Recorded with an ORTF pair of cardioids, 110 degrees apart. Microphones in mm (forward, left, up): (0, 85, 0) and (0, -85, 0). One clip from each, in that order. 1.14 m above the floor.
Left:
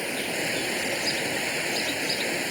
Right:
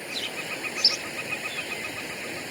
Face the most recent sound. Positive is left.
turn(degrees=45)